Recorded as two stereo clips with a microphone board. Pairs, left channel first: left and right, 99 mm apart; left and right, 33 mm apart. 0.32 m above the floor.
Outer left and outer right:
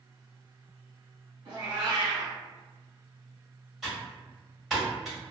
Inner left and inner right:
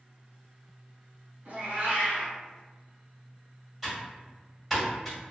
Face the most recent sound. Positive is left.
turn(degrees=0)  # may be behind; listen again after turning